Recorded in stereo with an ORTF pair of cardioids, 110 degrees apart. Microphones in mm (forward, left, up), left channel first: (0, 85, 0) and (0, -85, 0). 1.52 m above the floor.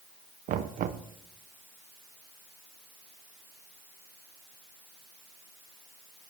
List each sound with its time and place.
0.5 s knocking: 55° right, 0.8 m